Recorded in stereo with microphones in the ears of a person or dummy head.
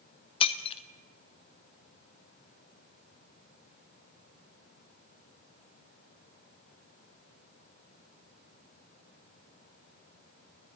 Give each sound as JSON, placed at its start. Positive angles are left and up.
{"t": 0.4, "sound": "breaking glass", "side_deg": 35, "distance_m": 1.2}